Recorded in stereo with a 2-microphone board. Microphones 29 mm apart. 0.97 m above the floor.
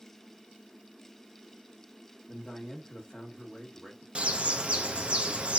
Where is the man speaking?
25° left (ahead or behind), 1.8 m.